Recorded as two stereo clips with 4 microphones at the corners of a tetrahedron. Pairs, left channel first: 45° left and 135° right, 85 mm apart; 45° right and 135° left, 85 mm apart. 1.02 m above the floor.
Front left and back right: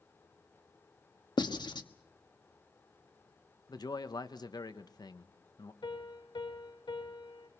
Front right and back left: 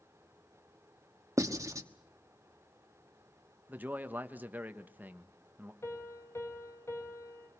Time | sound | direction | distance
1.4 | writing | 80° left | 1.2 m
3.7 | a man speaking | 70° left | 1.2 m
5.8 | a piano | 15° left | 4 m